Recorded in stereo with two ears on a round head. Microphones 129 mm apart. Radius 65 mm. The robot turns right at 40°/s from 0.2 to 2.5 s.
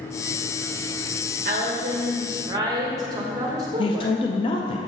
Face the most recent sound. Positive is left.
turn(degrees=35)  # may be behind; listen again after turning